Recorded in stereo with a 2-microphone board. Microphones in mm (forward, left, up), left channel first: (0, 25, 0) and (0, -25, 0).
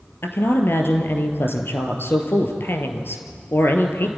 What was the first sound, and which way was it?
A woman speaking, 50° left (ahead or behind).